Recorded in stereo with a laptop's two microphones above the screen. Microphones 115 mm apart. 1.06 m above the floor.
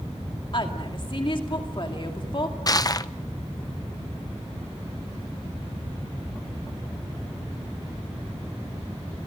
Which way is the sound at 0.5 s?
45° left (ahead or behind).